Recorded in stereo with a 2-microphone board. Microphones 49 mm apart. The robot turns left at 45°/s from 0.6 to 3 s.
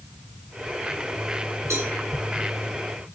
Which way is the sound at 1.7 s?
80° right.